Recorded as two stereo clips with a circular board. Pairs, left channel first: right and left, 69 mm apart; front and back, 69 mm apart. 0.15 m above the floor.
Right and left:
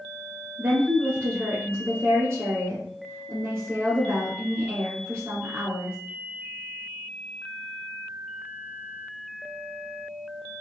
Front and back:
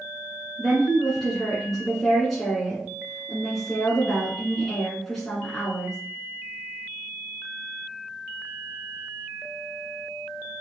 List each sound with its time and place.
0.6 s a woman speaking: 85° left, 1.3 m